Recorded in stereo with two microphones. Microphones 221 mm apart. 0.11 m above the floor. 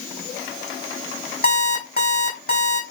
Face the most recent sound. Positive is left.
turn(degrees=45)  # may be behind; listen again after turning